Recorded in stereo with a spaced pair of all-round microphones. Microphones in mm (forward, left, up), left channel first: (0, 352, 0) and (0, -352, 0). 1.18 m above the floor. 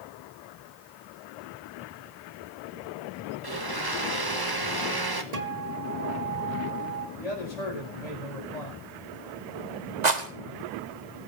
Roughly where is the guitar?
Right.